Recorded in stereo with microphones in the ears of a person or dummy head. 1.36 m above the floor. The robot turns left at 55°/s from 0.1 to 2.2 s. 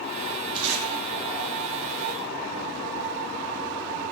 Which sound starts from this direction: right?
Tape being pulled, at 0.6 s.